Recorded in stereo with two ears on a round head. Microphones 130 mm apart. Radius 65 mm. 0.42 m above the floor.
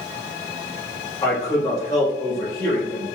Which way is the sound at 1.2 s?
25° left (ahead or behind).